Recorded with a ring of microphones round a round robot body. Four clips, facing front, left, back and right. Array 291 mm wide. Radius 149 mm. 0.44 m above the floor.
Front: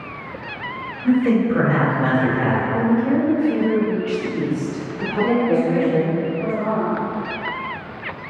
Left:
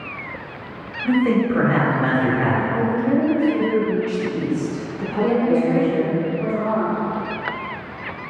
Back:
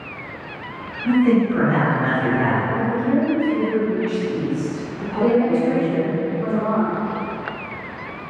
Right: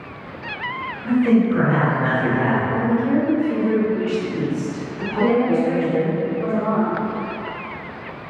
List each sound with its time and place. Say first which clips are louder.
1.0 s a man speaking: right 1 dB, even; 50° left, 1.4 m
2.7 s a woman speaking: even, front 2 dB; 15° right, 0.9 m
5.2 s a woman speaking: even, back 1 dB; 130° right, 1.8 m